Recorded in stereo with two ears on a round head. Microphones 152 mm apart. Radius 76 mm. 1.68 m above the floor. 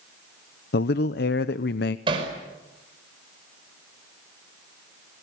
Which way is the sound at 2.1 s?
30° right (ahead or behind).